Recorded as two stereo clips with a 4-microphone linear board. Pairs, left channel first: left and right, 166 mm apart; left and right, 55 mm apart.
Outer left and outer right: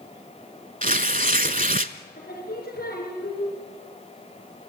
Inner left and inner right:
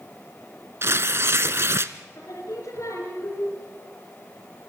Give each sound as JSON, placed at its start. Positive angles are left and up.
{"t": 0.8, "sound": "tearing paper", "side_deg": -55, "distance_m": 0.7}
{"t": 2.1, "sound": "singing", "side_deg": 70, "distance_m": 4.5}